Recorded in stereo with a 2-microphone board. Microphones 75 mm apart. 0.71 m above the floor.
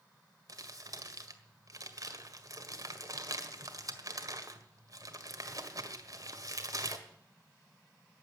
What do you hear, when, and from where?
0.5 s crumpling: 50° right (ahead or behind), 1.7 m